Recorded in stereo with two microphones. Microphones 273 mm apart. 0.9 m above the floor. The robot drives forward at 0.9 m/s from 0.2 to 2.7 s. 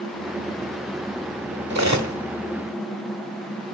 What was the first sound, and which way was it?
Cutlery clinking, 65° right (ahead or behind).